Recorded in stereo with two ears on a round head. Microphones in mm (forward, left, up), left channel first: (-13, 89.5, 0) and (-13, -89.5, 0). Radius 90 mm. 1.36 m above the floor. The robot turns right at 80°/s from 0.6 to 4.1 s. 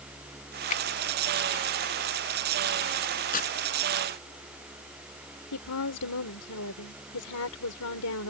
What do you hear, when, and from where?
0.7 s a finger snap: 40° left (ahead or behind); by 0.8 s 30° left (ahead or behind)
3.3 s tearing paper: 45° left (ahead or behind); by 3.5 s 30° left (ahead or behind)
5.5 s a woman speaking: 85° left